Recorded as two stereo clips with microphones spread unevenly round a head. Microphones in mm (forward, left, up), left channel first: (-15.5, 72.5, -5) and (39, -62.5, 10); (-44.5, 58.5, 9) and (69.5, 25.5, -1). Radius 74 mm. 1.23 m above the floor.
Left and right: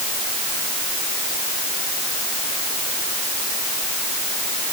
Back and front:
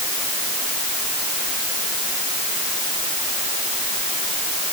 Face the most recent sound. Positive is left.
No sound to turn to.